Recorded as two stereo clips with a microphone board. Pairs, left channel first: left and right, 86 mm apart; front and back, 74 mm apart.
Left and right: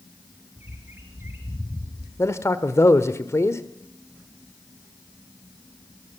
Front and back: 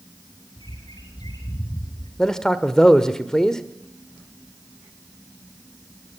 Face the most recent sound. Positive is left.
turn(degrees=80)